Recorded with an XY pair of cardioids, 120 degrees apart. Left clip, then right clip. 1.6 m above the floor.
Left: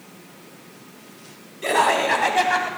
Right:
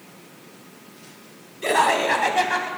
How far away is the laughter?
About 2 m.